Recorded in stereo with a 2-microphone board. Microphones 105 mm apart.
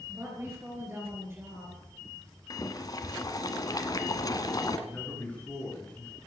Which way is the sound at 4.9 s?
15° left (ahead or behind).